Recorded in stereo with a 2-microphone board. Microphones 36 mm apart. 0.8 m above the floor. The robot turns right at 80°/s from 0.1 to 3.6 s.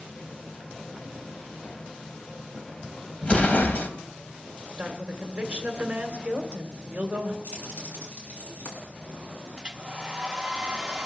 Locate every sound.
3.2 s an explosion: 30° left, 1.3 m; by 3.9 s 60° left, 1.3 m
4.8 s a woman speaking: 30° right (ahead or behind), 2 m
7.4 s keys jangling: 50° left (ahead or behind), 5.5 m
9.6 s a hair dryer: 25° right (ahead or behind), 0.8 m